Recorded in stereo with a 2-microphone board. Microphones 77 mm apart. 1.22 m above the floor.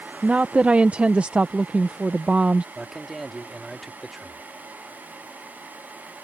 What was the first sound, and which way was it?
A woman speaking, 15° right (ahead or behind).